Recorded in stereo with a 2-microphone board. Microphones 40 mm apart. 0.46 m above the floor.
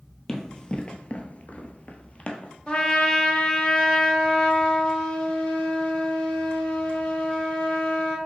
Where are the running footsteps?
20° left (ahead or behind), 0.8 m; by 2.5 s 30° left (ahead or behind), 0.9 m.